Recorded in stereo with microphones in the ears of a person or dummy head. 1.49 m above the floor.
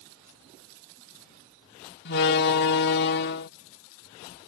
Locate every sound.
2.0 s a door slam: 60° left (ahead or behind)